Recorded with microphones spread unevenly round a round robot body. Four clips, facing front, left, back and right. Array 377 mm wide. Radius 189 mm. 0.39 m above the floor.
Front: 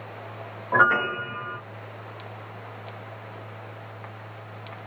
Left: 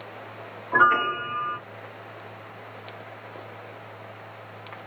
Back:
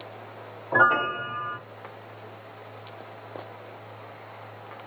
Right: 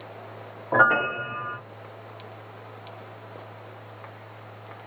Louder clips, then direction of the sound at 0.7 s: Even, front 1 dB; 85° right.